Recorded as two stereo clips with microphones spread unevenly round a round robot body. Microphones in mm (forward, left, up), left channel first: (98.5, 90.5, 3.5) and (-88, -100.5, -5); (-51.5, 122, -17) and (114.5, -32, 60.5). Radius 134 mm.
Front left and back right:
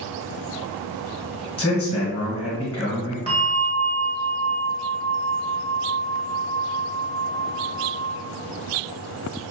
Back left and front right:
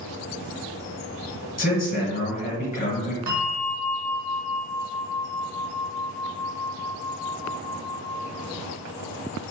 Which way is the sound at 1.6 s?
130° left.